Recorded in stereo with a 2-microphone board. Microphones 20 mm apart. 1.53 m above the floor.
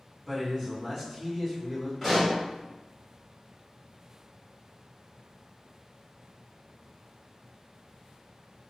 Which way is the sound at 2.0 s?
Centre (ahead or behind).